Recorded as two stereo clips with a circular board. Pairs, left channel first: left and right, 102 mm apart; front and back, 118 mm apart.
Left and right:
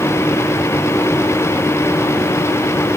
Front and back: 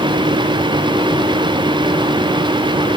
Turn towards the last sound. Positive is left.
No sound to turn to.